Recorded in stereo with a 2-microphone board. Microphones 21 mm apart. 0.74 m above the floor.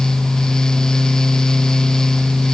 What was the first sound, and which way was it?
Only background noise.